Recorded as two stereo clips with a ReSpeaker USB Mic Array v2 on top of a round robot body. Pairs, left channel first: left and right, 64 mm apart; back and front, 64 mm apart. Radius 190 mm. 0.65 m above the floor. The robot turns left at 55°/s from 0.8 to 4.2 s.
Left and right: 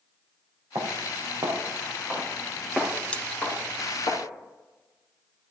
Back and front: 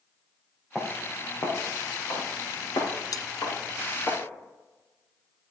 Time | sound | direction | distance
0.8 | footsteps | 100° right | 3.5 m
3.1 | cutlery clinking | 160° left | 0.6 m